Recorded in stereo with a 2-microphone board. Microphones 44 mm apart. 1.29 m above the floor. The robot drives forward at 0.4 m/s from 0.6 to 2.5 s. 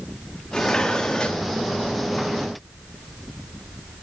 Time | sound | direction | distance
0.5 | dishes clattering | 20° left (ahead or behind) | 1.6 m